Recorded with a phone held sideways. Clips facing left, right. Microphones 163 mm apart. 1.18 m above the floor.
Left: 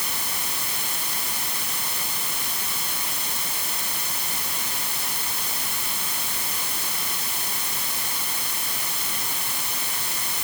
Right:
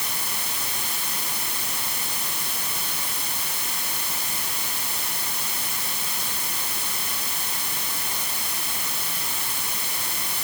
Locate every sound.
Only background noise.